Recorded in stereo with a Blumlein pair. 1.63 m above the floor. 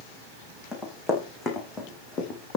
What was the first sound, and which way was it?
Running footsteps, 15° left.